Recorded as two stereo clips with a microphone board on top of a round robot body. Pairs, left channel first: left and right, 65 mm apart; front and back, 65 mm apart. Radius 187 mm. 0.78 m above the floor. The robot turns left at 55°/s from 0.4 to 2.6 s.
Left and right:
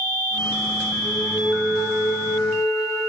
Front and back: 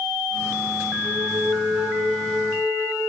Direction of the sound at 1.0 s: 155° left.